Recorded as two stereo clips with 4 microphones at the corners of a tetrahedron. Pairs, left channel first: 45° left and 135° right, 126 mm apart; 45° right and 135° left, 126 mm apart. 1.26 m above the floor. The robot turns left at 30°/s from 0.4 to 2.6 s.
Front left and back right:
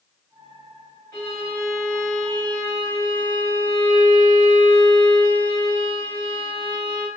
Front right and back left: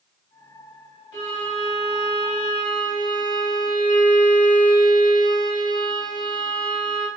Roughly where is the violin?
Ahead.